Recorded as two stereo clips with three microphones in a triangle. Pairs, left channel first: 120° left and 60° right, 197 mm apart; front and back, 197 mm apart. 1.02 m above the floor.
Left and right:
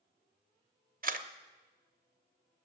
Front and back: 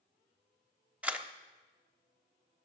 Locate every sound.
1.0 s a camera shutter: 95° right, 0.8 m